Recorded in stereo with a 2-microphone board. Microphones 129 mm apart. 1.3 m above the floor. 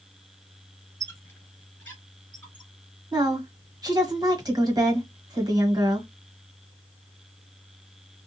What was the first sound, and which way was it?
A squeak, 20° left (ahead or behind).